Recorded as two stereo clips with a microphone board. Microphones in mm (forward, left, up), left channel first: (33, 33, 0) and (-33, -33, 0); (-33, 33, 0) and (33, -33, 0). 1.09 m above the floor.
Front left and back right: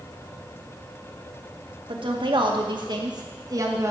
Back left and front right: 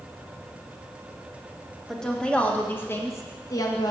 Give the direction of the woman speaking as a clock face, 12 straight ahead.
5 o'clock.